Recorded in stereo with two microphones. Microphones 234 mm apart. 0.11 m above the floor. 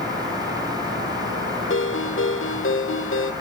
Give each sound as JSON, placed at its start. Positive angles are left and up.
{"t": 1.7, "sound": "a ringtone", "side_deg": 60, "distance_m": 1.6}